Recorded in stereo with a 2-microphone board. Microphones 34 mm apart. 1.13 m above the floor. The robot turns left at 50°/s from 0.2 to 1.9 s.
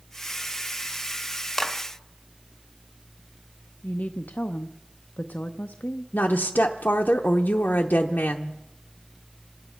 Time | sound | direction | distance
1.6 | a clap | 5° left (ahead or behind) | 1.7 m
3.8 | a woman speaking | 55° left (ahead or behind) | 0.6 m
6.1 | a woman speaking | 55° left (ahead or behind) | 0.8 m